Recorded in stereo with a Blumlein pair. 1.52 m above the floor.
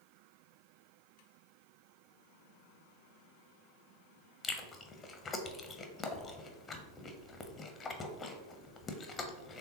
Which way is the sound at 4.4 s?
20° left.